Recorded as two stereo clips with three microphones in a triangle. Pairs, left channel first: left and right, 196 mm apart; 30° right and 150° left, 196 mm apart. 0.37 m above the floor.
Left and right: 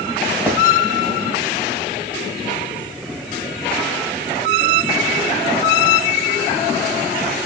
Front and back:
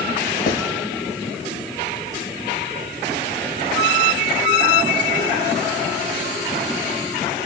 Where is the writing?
5° left, 2.5 m.